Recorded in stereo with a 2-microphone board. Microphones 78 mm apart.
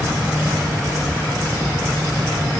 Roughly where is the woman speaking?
No woman speaking in this recording.